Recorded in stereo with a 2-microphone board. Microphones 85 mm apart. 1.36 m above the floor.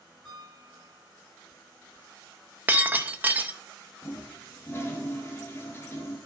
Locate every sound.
0.2 s a piano: centre (ahead or behind), 6.5 m
2.7 s breaking glass: 25° right (ahead or behind), 0.6 m
4.0 s a toilet flushing: 30° left (ahead or behind), 1.5 m